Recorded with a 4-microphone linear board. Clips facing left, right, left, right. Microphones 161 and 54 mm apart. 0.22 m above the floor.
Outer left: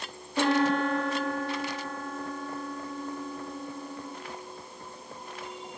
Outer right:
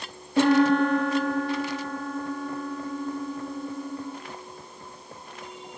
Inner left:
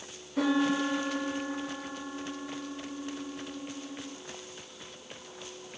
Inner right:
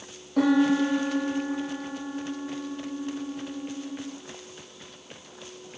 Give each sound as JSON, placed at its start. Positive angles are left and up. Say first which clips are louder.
{"t": 0.4, "sound": "a piano", "louder": "outer right 6 dB, inner right 6 dB", "side_deg": -65, "distance_m": 2.5}